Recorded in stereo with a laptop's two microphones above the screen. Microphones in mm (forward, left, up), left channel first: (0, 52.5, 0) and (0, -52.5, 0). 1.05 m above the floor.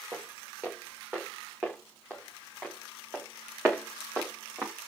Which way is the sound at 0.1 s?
15° right (ahead or behind).